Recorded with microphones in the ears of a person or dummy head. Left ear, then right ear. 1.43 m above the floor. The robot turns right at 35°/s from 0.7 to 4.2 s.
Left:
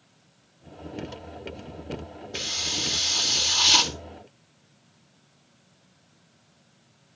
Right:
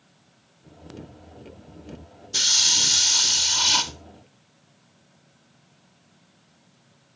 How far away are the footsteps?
No footsteps in this recording.